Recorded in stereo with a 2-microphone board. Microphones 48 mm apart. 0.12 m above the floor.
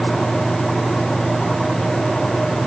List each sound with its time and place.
Only background noise.